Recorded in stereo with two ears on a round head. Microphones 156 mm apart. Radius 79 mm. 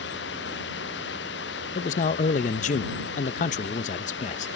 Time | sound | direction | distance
0.0 | running water | 65° left (ahead or behind) | ?
1.8 | a man speaking | 45° left (ahead or behind) | ?